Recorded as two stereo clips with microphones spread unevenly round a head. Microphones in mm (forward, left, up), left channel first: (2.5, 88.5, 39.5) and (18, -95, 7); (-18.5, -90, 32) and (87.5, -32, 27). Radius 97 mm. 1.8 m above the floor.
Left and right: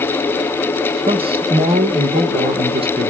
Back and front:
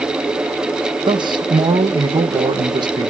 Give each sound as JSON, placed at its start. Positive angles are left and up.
{"t": 1.1, "sound": "a man speaking", "azimuth_deg": -20, "distance_m": 1.5}